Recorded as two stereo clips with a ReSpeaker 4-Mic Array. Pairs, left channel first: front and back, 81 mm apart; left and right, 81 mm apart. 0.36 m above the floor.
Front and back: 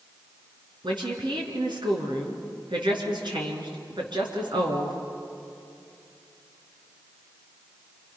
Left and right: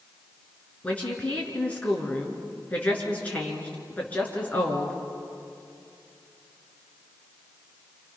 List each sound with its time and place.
0.8 s a woman speaking: 160° left, 5 m